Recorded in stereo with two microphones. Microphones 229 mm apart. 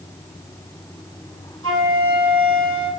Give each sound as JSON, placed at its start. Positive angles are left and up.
{"t": 1.6, "sound": "a flute", "side_deg": -70, "distance_m": 2.5}